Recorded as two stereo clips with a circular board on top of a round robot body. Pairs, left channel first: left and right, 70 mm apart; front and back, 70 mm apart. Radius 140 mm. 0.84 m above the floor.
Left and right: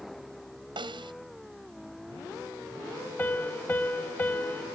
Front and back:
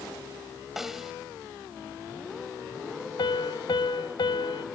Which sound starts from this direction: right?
A snare drum, at 0.8 s.